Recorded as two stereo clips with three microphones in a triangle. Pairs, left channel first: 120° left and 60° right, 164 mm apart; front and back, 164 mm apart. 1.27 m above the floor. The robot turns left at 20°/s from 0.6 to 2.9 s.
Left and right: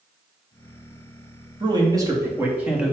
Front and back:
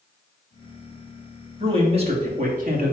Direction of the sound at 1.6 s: 120° right.